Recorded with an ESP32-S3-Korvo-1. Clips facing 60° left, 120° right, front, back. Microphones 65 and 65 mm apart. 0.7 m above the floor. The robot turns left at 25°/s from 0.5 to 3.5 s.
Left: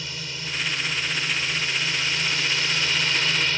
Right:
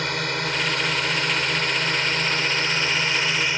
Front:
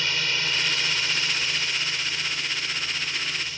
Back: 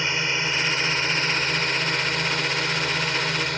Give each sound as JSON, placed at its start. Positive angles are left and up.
{"t": 0.0, "sound": "a drone", "azimuth_deg": -115}